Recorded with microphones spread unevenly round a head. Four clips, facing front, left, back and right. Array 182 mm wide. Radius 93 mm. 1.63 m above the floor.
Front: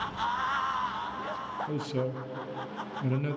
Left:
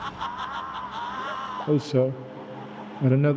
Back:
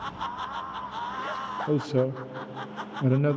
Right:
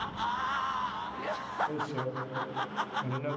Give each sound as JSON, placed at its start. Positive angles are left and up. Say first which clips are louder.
{"t": 1.7, "sound": "a man speaking", "louder": "left 12 dB, back 9 dB", "azimuth_deg": 105, "distance_m": 0.7}